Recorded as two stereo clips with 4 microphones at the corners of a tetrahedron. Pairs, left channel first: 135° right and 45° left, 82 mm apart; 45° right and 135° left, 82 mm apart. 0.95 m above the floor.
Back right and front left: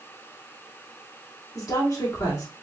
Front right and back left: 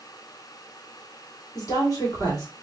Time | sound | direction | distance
1.6 | a woman speaking | 90° right | 2.5 m